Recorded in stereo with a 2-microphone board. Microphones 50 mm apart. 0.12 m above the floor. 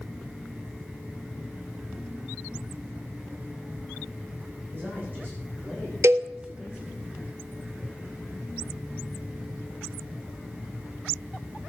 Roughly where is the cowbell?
Right.